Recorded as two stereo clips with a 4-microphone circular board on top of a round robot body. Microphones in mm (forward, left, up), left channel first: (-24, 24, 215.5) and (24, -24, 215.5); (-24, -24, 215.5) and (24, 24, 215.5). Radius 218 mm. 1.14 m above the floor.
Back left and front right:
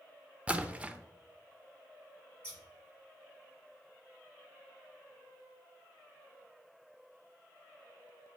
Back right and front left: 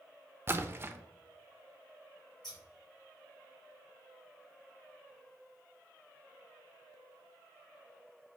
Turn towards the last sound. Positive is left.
turn(degrees=-155)